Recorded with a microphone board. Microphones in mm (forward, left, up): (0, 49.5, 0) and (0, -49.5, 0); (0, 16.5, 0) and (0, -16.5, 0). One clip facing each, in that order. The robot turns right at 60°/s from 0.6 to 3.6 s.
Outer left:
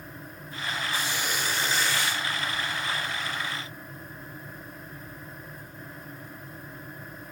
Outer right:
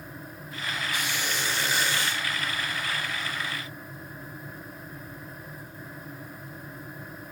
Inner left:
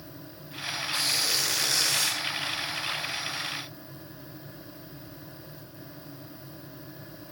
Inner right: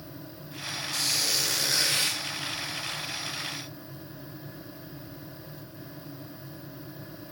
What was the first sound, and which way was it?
A squeak, 145° left.